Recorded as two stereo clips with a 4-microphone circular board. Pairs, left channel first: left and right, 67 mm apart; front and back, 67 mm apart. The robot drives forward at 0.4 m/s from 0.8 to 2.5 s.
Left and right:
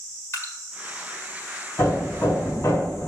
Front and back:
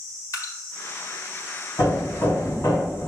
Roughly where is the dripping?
Ahead left.